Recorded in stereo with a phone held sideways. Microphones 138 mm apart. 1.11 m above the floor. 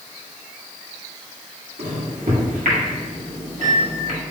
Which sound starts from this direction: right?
A microwave, at 1.8 s.